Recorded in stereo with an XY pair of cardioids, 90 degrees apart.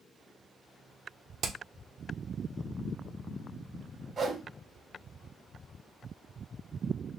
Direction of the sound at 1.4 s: 70° right.